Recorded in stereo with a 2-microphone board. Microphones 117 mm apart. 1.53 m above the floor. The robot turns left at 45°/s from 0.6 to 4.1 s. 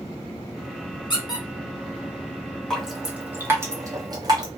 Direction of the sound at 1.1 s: 40° left (ahead or behind).